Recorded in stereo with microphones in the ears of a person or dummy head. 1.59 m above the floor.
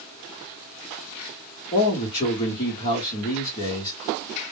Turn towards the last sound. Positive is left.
turn(degrees=30)  # may be behind; listen again after turning